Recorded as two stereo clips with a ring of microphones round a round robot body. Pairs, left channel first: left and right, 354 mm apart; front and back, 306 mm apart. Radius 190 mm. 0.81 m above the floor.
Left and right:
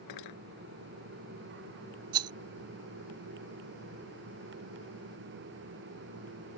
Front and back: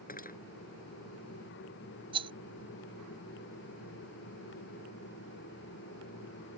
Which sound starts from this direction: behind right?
A rattle, at 2.1 s.